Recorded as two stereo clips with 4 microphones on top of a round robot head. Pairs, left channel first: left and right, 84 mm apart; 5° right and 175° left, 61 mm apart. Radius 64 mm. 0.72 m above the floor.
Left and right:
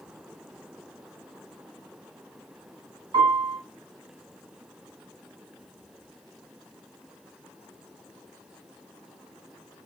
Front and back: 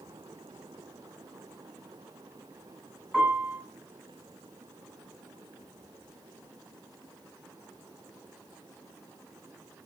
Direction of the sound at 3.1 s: 100° right.